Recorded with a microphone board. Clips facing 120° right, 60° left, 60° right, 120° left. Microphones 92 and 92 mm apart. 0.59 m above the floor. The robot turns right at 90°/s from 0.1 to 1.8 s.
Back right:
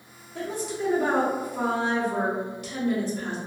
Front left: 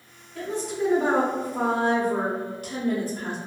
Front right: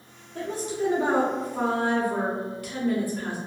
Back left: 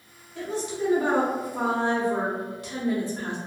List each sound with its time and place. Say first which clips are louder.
0.3 s a woman speaking: front left 2 dB, even; 65° right, 0.8 m; by 3.4 s 65° left, 0.8 m